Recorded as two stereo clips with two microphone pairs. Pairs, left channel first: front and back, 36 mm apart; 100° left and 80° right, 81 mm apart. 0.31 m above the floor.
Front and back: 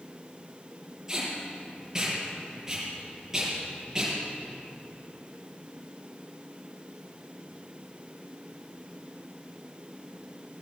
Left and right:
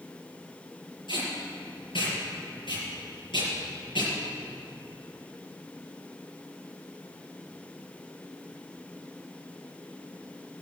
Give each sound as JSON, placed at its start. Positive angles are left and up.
{"t": 1.1, "sound": "tape being pulled", "azimuth_deg": 105, "distance_m": 6.5}